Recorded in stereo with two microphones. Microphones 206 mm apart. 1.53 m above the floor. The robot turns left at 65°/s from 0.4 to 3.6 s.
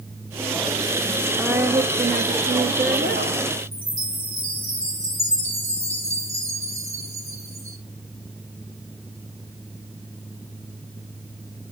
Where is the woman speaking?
5° right, 0.8 m; by 3.4 s 135° right, 0.8 m.